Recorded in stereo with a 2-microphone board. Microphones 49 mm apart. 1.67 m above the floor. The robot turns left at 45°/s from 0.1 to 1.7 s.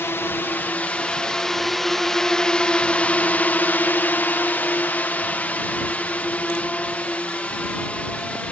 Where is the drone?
60° left (ahead or behind); by 8.5 s 25° left (ahead or behind).